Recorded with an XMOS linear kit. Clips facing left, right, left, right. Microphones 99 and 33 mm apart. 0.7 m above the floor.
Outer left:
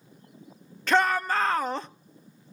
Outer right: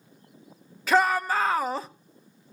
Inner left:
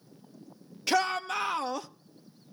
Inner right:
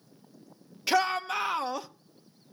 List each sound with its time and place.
0.9 s a shout: 5° right (ahead or behind), 0.9 m